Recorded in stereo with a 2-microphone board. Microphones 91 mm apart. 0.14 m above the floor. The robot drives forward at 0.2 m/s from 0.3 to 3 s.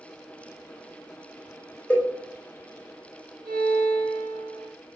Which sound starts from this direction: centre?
A cowbell, at 1.9 s.